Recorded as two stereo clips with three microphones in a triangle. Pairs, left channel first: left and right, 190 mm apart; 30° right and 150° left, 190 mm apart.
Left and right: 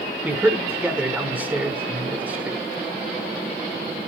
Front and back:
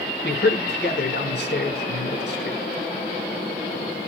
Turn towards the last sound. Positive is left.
turn(degrees=-10)